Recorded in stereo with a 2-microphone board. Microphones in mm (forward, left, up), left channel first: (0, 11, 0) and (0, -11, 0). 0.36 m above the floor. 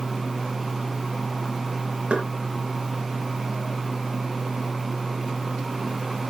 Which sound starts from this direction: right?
Knocking, at 2.1 s.